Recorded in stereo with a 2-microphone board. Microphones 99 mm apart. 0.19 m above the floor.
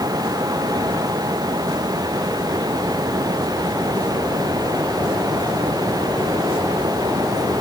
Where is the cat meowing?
I don't hear a cat meowing.